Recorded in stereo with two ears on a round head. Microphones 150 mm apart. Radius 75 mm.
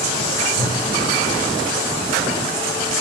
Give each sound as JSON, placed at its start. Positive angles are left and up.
{"t": 0.5, "sound": "a whoosh", "side_deg": -40, "distance_m": 0.8}